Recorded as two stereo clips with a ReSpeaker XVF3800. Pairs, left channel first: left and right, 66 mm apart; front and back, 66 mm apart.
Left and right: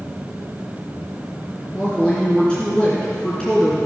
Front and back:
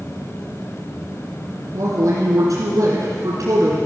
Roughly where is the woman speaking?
Behind.